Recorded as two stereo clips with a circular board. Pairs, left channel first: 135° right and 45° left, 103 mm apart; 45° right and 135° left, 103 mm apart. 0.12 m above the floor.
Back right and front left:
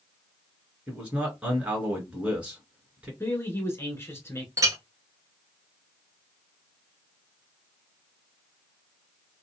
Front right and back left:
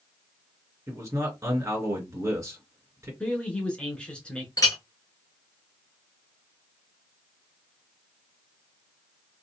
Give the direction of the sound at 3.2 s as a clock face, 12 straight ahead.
4 o'clock.